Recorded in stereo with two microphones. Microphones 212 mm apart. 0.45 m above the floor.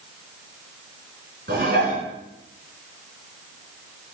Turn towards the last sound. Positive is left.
turn(degrees=-60)  # may be behind; listen again after turning